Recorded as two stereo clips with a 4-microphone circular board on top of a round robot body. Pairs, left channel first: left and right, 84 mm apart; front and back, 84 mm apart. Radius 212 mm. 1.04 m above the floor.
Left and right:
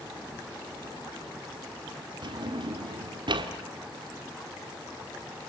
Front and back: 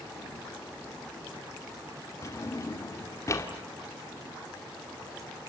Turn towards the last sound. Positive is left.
turn(degrees=-55)